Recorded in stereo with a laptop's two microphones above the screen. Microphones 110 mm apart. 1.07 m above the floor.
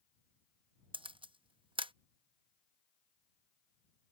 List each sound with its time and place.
0.9 s a camera shutter: 50° right (ahead or behind)